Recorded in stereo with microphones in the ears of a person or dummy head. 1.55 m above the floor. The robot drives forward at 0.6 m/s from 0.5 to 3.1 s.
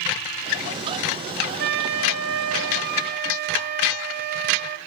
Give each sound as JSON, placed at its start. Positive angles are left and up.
{"t": 1.6, "sound": "a flute", "side_deg": -60, "distance_m": 0.7}